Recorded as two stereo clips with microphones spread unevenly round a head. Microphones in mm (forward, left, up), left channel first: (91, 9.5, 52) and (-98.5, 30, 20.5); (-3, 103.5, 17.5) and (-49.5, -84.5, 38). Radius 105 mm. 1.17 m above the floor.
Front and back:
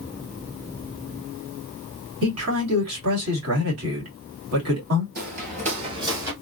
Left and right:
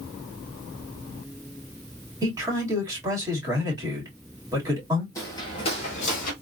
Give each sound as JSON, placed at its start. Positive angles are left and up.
{"t": 2.2, "sound": "a man speaking", "azimuth_deg": 180, "distance_m": 2.0}
{"t": 5.2, "sound": "footsteps", "azimuth_deg": 150, "distance_m": 1.3}